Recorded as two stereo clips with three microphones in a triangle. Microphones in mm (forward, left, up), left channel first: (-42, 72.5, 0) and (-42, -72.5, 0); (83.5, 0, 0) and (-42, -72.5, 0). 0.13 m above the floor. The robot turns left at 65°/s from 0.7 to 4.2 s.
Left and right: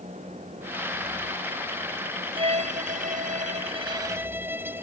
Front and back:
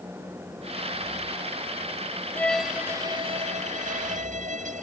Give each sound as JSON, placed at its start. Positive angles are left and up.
{"t": 2.4, "sound": "a violin", "azimuth_deg": -45}